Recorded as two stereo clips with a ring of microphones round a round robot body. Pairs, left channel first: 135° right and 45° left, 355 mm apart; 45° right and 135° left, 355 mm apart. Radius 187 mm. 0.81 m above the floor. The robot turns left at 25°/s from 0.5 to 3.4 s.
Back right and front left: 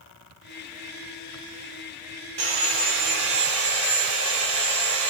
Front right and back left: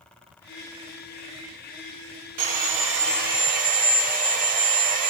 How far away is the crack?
I don't hear a crack.